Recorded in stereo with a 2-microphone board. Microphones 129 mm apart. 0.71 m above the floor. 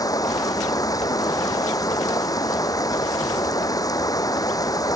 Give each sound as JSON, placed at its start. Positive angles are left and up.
{"t": 0.0, "sound": "running water", "side_deg": 25}